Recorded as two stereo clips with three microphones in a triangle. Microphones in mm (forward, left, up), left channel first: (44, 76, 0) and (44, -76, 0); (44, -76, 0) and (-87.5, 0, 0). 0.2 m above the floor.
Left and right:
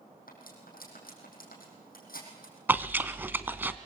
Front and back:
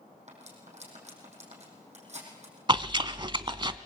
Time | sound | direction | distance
0.3 | cutlery clinking | 110° left | 5.5 m
2.7 | chewing | 160° right | 0.8 m